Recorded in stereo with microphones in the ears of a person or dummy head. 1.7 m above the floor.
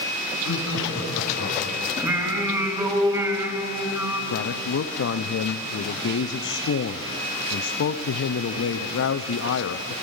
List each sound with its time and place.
0.4 s laughter: 80° left, 9 m
2.0 s singing: 25° right (ahead or behind), 3 m
4.3 s a man speaking: 60° left (ahead or behind), 0.7 m